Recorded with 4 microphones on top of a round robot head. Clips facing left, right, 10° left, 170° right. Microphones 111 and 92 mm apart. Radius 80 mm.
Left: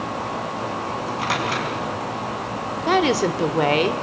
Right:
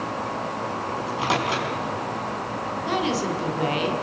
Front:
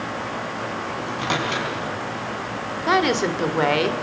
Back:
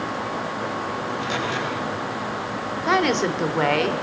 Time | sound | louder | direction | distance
1.0 | a microwave | right 1 dB, front 1 dB | 25° right | 5 m
2.9 | a woman speaking | left 7 dB, front 1 dB | 100° left | 1.9 m